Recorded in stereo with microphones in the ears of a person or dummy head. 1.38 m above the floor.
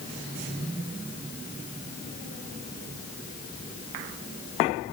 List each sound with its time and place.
Only background noise.